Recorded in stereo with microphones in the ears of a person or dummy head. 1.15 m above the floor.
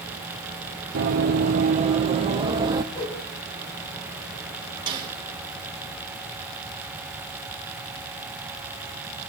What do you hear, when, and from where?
0.9 s running footsteps: 45° right (ahead or behind), 1.5 m; by 2.8 s 20° right (ahead or behind), 1.7 m
2.9 s a whoosh: 25° left (ahead or behind), 5.5 m
4.9 s a snare drum: 20° right (ahead or behind), 4 m